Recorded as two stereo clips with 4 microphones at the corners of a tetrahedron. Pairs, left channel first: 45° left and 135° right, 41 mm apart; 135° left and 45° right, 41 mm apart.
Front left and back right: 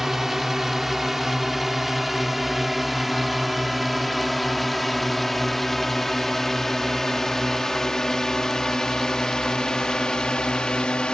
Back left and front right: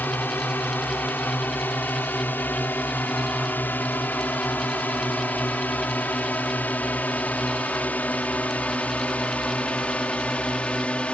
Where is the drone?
145° left; by 11.2 s 95° left.